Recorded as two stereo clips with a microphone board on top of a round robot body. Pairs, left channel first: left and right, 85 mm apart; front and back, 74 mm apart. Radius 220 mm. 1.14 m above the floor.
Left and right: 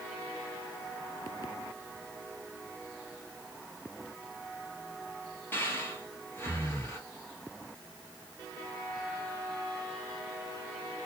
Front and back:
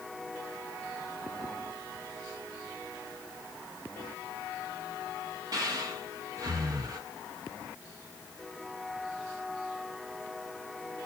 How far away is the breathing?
About 1.1 m.